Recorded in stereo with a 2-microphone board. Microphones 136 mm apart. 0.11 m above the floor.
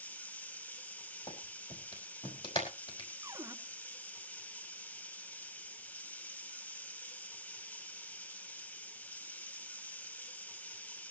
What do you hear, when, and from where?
0.0 s running water: 10° left (ahead or behind), 1.0 m
1.3 s a clap: 40° left (ahead or behind), 4 m
3.2 s a cupboard door: 20° right (ahead or behind), 0.9 m